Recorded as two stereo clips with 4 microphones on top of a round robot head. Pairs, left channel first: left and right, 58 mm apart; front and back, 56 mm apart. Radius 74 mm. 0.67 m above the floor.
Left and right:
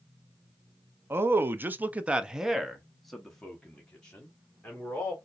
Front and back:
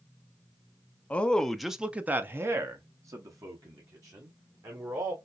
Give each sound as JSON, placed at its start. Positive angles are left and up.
{"t": 1.1, "sound": "a man speaking", "azimuth_deg": -60, "distance_m": 0.7}